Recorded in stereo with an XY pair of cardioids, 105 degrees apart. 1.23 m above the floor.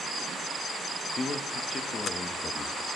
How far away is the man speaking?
About 1.7 m.